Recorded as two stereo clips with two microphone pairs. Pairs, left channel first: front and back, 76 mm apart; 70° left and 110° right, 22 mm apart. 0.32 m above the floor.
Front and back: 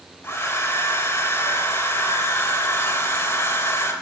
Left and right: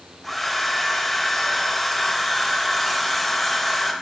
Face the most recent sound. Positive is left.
turn(degrees=-10)